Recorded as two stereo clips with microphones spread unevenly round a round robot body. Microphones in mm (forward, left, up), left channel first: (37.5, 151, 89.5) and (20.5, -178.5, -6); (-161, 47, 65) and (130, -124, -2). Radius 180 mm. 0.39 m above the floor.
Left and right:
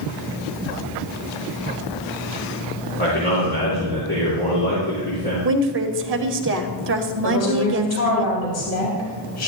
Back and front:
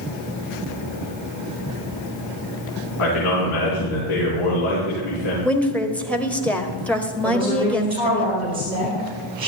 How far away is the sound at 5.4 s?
About 1.4 m.